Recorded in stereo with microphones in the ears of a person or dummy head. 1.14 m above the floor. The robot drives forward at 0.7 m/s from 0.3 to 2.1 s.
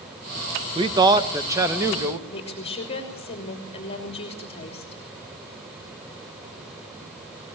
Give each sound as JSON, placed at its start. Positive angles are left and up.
{"t": 0.8, "sound": "a man speaking", "side_deg": -20, "distance_m": 0.9}
{"t": 2.3, "sound": "a woman speaking", "side_deg": 35, "distance_m": 3.0}